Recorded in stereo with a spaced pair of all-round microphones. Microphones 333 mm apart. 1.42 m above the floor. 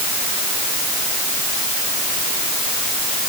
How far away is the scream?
I don't hear a scream.